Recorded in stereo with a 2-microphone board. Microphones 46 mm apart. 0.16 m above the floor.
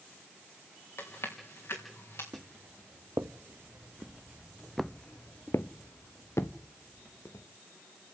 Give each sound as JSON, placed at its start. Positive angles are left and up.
{"t": 1.0, "sound": "chewing", "side_deg": 60, "distance_m": 4.0}
{"t": 2.3, "sound": "footsteps", "side_deg": -70, "distance_m": 1.8}